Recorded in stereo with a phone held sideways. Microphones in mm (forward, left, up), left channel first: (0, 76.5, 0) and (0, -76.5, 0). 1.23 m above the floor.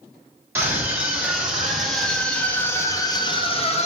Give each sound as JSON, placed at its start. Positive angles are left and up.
{"t": 0.6, "sound": "a scream", "side_deg": -15, "distance_m": 2.5}